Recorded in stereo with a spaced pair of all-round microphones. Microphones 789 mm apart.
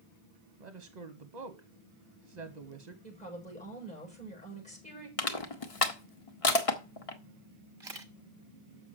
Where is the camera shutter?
35° right (ahead or behind), 1.2 m.